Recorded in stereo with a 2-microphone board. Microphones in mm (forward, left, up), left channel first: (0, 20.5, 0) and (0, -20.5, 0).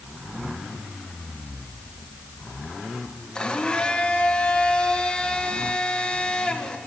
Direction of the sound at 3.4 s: 20° left (ahead or behind).